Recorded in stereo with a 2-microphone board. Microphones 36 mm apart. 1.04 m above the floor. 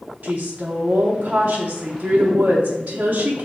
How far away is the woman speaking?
About 0.7 m.